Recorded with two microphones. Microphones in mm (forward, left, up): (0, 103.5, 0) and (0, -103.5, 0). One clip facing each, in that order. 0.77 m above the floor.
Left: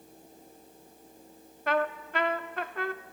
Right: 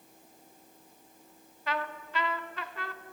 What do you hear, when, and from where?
1.7 s a trumpet: 55° left (ahead or behind), 0.6 m